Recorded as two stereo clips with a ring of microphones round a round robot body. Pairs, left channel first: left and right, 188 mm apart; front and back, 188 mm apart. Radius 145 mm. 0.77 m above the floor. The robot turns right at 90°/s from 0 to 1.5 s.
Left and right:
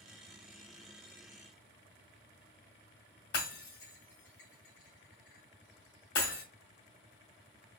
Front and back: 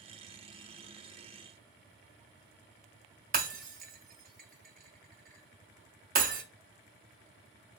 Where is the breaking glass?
140° left, 1.5 m.